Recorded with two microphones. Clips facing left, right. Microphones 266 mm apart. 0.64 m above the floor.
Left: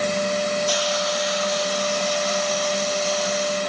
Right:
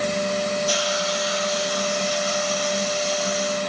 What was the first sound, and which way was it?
A hiss, 75° left (ahead or behind).